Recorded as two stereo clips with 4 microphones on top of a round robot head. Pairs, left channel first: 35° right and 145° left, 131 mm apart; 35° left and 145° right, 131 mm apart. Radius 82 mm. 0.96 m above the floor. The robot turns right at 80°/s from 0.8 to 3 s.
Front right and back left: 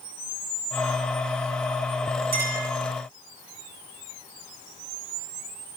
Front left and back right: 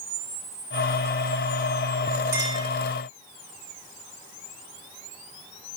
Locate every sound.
2.3 s a clink: 145° left, 8 m; by 2.7 s 175° left, 8 m